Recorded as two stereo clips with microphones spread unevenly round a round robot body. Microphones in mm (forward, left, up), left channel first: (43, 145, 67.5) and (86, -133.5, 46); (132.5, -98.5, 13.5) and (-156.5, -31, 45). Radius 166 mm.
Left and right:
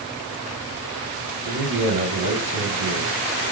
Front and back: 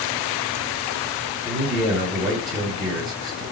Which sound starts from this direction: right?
A man speaking, at 1.4 s.